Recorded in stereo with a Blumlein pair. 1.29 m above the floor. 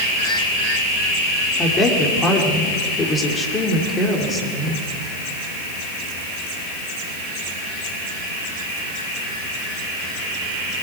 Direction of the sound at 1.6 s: 20° left.